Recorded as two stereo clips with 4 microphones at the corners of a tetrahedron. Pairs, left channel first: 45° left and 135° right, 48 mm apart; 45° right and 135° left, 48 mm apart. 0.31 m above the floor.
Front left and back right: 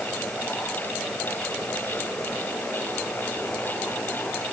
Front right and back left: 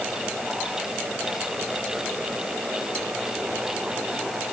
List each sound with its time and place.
Only background noise.